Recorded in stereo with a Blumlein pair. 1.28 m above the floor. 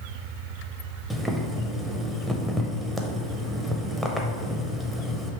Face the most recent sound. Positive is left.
turn(degrees=0)